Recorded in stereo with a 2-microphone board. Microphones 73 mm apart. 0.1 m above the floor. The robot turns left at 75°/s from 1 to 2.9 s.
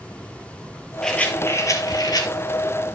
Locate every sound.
1.0 s a rattle: 170° left, 2.5 m; by 2.3 s 75° left, 2.5 m